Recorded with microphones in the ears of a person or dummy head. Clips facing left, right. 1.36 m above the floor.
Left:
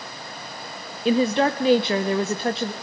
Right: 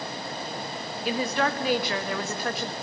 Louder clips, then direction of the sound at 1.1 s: Left 8 dB; 25° left (ahead or behind).